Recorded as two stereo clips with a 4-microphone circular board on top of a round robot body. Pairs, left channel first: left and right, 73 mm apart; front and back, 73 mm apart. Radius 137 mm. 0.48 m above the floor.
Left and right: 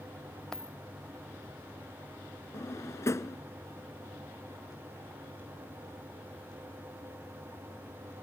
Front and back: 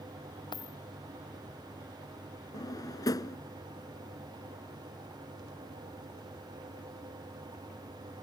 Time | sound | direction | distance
0.5 | a dropped coin | 10° left | ?
2.5 | a drawer | 40° left | ?